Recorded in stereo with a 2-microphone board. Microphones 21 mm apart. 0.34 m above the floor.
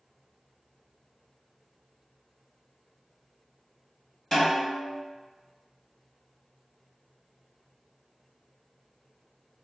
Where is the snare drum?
25° left (ahead or behind), 1.8 m.